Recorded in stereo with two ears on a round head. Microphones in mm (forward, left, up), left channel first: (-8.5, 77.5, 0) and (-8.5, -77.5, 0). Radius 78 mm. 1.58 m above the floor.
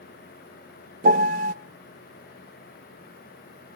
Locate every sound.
1.0 s a piano: 50° right (ahead or behind), 1.0 m